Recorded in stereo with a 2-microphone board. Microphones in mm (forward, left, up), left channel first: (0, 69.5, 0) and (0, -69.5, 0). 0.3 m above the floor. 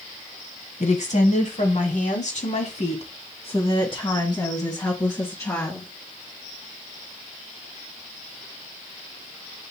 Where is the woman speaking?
60° left (ahead or behind), 2 m; by 5.9 s 15° left (ahead or behind), 3 m.